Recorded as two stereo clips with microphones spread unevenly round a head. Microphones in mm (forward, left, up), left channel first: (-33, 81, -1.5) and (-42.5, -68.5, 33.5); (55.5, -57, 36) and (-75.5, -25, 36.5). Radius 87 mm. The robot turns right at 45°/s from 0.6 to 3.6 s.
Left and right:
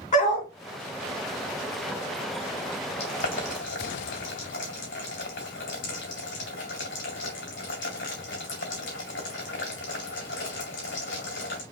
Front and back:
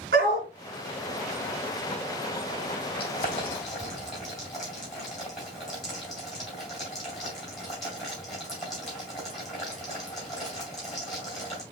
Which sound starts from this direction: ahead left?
Boiling, at 3.0 s.